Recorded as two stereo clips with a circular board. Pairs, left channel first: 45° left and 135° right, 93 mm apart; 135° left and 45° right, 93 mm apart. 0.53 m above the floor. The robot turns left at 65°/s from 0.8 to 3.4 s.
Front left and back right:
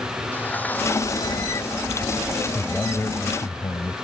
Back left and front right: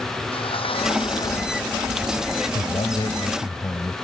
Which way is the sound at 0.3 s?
115° left.